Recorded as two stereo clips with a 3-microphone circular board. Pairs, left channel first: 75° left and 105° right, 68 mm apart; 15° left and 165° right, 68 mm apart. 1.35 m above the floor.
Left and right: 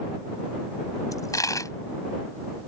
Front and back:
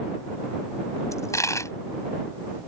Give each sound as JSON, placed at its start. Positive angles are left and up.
{"t": 1.1, "sound": "a dropped coin", "azimuth_deg": 50}